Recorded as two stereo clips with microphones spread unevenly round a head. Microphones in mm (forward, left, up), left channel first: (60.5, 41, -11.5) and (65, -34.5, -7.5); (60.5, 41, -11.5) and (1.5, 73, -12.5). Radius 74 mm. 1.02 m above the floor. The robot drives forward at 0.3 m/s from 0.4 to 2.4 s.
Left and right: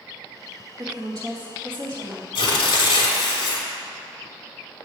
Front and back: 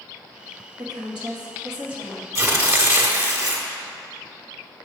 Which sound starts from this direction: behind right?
A woman speaking, at 0.8 s.